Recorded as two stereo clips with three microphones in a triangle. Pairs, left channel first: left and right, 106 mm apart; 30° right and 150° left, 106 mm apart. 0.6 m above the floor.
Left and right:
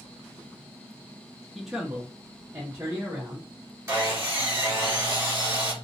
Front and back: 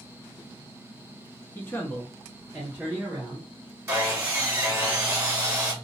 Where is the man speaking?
Straight ahead, 0.7 m; by 3.5 s 145° right, 1.2 m.